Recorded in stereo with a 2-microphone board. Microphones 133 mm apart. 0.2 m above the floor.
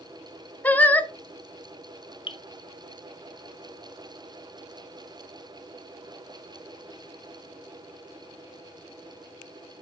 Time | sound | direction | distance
0.6 | singing | 15° left (ahead or behind) | 0.6 m
2.3 | dripping | 40° left (ahead or behind) | 0.7 m